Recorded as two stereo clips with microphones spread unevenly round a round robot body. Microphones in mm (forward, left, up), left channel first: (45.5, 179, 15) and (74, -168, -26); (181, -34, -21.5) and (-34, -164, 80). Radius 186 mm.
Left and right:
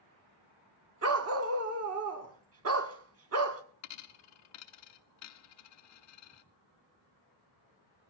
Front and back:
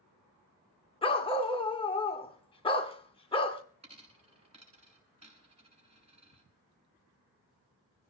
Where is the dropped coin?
145° left, 0.8 m.